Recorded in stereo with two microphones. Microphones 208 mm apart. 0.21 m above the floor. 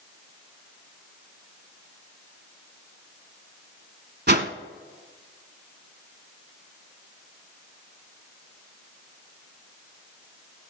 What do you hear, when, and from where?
4.3 s a whoosh: 55° right (ahead or behind), 0.8 m